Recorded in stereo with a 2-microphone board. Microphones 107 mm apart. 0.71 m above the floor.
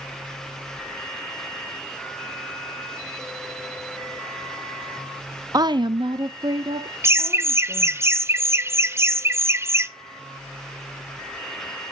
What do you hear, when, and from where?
5.5 s a woman speaking: 35° right (ahead or behind), 0.5 m; by 8.0 s 40° right (ahead or behind), 2 m
7.0 s laughter: 25° right (ahead or behind), 0.7 m